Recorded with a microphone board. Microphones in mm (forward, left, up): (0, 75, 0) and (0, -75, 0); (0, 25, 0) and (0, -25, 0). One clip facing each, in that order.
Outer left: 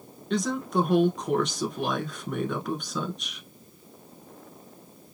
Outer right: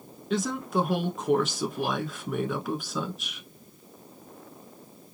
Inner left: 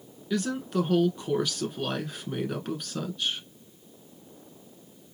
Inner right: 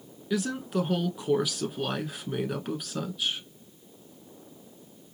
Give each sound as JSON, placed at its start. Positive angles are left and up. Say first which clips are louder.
{"t": 0.3, "sound": "a woman speaking", "louder": "outer left 1 dB, even", "side_deg": -5, "distance_m": 1.1}